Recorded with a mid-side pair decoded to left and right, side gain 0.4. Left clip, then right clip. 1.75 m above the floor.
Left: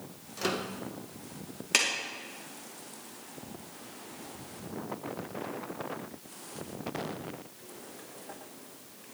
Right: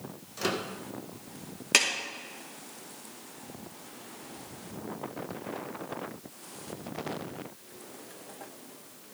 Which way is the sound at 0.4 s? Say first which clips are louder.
Right 1 dB; 10° right.